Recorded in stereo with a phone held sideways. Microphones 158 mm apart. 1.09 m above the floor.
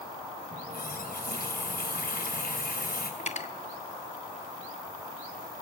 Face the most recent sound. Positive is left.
turn(degrees=45)  # may be behind; listen again after turning